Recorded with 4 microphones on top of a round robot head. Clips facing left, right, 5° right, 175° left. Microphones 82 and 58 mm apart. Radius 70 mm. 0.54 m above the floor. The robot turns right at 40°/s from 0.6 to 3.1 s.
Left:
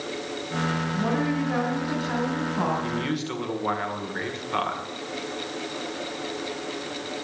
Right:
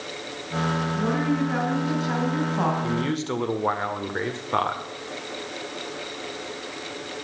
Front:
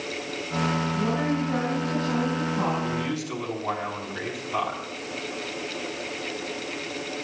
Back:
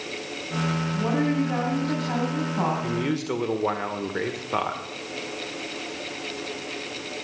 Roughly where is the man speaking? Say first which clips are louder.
Right 2 dB, back 2 dB; behind right.